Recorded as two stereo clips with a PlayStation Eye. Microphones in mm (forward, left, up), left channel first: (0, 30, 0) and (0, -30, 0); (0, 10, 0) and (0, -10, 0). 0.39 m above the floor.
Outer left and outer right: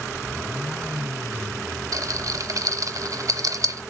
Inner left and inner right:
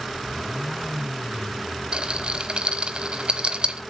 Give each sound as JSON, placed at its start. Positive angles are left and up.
{"t": 1.9, "sound": "a rattle", "side_deg": -65, "distance_m": 0.9}